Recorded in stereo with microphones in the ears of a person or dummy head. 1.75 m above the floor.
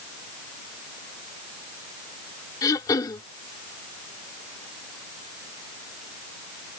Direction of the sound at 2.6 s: 25° left (ahead or behind).